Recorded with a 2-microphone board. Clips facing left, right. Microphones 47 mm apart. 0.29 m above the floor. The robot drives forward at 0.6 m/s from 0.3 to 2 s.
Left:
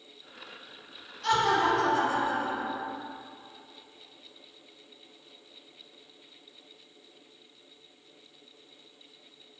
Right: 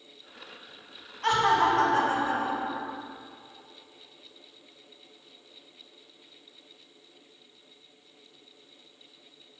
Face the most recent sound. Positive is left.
turn(degrees=-45)  # may be behind; listen again after turning